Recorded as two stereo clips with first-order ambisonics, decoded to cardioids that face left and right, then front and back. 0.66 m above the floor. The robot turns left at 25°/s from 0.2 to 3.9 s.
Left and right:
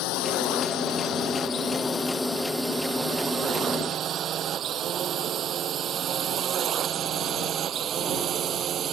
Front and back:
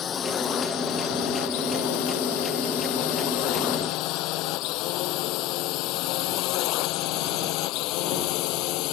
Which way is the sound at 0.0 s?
60° left.